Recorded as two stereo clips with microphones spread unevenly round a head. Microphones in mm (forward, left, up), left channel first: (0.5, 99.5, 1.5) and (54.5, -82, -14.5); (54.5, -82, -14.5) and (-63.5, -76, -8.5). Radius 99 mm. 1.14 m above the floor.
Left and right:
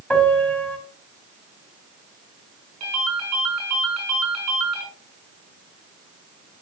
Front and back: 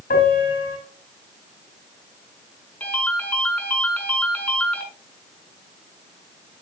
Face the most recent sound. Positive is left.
turn(degrees=-80)